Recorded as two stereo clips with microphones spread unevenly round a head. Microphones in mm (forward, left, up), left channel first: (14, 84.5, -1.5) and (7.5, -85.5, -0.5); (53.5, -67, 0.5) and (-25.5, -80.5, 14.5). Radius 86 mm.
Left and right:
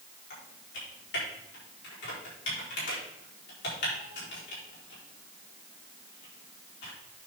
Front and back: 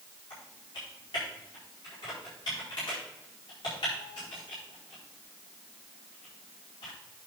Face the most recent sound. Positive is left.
turn(degrees=70)